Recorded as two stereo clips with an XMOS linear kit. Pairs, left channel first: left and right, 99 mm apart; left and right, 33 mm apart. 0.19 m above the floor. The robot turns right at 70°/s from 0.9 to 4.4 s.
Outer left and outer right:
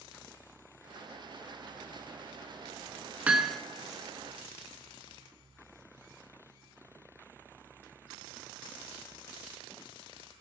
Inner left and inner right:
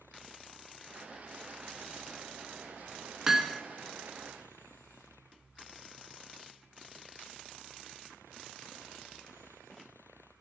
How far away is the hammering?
About 0.8 m.